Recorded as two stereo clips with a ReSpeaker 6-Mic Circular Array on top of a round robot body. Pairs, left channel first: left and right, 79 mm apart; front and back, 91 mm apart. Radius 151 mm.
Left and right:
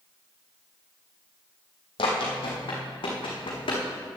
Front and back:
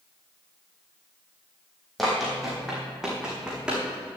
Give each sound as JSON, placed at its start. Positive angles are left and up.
{"t": 2.0, "sound": "running footsteps", "azimuth_deg": 90, "distance_m": 2.0}